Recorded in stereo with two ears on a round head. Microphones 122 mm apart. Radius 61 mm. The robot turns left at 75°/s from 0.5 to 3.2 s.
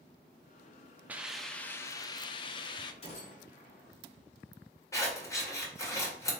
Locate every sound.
1.1 s a hiss: 160° right, 0.5 m; by 2.9 s 65° left, 0.5 m
3.0 s a gunshot: 45° left (ahead or behind), 1.5 m; by 3.9 s 55° left (ahead or behind), 1.5 m
4.9 s scissors: 25° left (ahead or behind), 2 m